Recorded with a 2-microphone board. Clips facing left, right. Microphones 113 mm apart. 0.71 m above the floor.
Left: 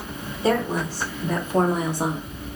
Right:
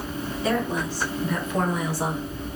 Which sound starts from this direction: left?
A woman speaking, at 0.4 s.